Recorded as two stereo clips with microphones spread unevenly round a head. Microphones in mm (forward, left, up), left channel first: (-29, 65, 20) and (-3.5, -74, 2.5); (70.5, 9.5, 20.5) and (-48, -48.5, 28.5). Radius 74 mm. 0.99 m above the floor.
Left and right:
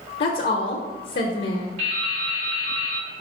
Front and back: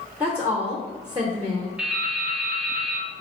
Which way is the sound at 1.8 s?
80° right.